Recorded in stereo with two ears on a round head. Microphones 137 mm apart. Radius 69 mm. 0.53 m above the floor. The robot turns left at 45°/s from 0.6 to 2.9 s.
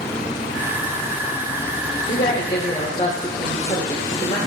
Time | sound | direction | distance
2.1 | a woman speaking | 70° left | 1.2 m